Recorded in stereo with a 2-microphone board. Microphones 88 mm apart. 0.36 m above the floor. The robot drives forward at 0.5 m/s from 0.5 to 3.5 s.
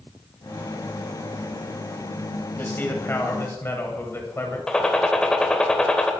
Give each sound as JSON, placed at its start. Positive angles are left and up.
{"t": 2.6, "sound": "a man speaking", "side_deg": 25, "distance_m": 2.5}
{"t": 4.7, "sound": "a gunshot", "side_deg": 10, "distance_m": 1.2}